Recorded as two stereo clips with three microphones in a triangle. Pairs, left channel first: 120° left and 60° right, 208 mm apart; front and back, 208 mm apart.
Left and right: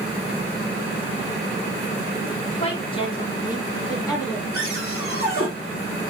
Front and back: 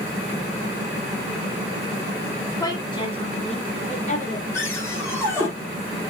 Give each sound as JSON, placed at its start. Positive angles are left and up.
{"t": 2.6, "sound": "a woman speaking", "azimuth_deg": 70, "distance_m": 1.8}
{"t": 4.5, "sound": "a cupboard door", "azimuth_deg": 80, "distance_m": 5.5}